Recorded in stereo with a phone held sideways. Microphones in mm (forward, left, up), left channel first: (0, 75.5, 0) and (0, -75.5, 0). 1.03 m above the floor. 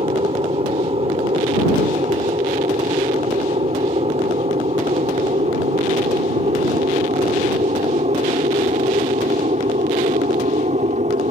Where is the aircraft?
40° right (ahead or behind); by 11.3 s 50° right (ahead or behind).